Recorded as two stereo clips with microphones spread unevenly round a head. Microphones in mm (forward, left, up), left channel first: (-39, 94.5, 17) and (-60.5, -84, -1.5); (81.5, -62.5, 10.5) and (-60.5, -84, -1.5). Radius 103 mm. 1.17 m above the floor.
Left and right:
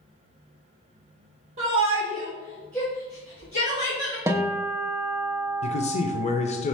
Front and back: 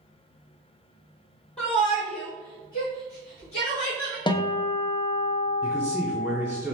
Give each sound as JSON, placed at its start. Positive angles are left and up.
{"t": 1.6, "sound": "a shout", "azimuth_deg": -35, "distance_m": 2.0}
{"t": 4.3, "sound": "a guitar", "azimuth_deg": -40, "distance_m": 0.6}
{"t": 5.6, "sound": "a man speaking", "azimuth_deg": 120, "distance_m": 0.6}